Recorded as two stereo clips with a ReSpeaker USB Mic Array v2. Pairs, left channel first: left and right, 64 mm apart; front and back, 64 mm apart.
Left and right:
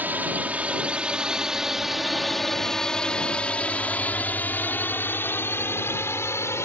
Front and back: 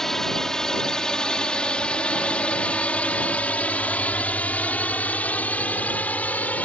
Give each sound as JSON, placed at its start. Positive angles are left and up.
{"t": 0.0, "sound": "a drone", "azimuth_deg": -75}